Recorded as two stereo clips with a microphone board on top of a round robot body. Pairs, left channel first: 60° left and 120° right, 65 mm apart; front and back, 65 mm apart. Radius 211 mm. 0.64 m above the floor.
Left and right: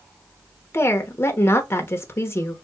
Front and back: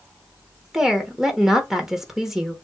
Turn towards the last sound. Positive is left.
turn(degrees=100)